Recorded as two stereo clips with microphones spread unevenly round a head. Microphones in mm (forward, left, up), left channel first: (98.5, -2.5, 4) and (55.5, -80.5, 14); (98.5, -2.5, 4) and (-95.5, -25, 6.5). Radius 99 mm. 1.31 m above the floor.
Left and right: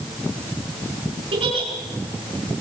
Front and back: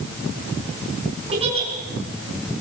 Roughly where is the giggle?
Behind right.